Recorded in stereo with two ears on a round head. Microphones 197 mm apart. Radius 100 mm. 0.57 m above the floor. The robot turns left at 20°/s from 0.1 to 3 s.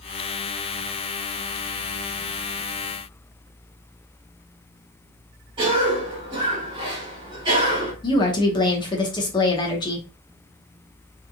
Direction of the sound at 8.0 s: 20° left (ahead or behind).